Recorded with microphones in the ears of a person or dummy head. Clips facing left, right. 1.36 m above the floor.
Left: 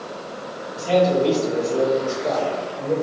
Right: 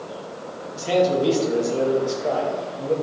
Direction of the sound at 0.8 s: 15° right (ahead or behind).